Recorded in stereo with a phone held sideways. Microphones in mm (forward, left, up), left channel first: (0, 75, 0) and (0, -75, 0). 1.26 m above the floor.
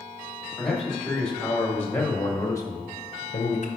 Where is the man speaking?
Centre (ahead or behind), 2.5 m; by 3.7 s 55° left (ahead or behind), 0.7 m.